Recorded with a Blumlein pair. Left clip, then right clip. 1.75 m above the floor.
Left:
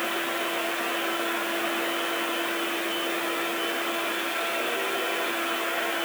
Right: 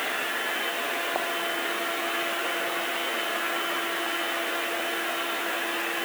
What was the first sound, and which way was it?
Only background noise.